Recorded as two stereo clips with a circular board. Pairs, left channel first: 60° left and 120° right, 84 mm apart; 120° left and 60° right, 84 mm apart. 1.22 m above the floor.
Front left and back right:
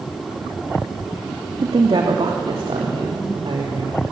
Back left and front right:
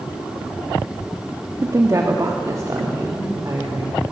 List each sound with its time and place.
1.6 s a woman speaking: 105° right, 2 m; by 4.0 s 110° right, 4.5 m